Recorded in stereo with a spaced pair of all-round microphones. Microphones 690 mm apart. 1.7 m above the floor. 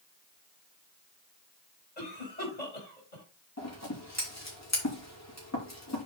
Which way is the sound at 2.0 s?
70° left (ahead or behind).